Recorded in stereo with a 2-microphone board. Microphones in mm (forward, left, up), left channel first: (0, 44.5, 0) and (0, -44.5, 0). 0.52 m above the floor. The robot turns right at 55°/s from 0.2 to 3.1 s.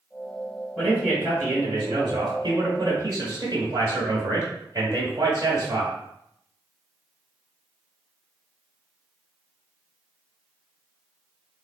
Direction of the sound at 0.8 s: 170° right.